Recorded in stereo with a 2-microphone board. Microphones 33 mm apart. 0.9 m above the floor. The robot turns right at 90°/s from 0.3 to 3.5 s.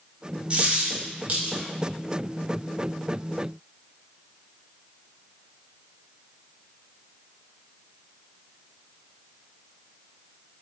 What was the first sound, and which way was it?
A dropped coin, 30° right (ahead or behind).